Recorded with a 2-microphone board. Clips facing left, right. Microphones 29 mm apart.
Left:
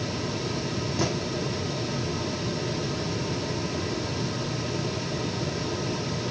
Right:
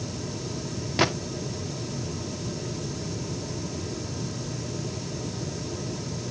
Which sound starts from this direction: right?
A gunshot, at 1.0 s.